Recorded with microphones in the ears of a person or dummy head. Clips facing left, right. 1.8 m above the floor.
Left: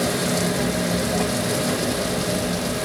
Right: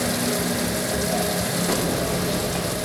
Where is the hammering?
85° right, 5.5 m.